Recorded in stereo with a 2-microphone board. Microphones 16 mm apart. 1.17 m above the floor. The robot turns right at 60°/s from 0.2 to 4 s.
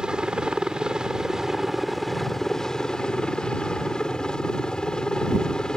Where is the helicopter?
110° right; by 5.8 s 120° left.